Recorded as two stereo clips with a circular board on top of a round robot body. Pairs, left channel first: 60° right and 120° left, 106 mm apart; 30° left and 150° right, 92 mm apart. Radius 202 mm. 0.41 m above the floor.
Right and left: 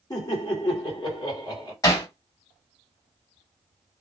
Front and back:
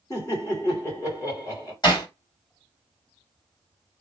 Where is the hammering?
5° right, 1.9 m.